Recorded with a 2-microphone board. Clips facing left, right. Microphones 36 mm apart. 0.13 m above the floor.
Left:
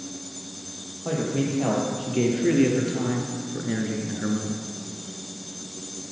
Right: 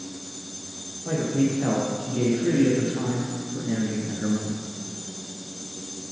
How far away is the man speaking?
About 4.5 m.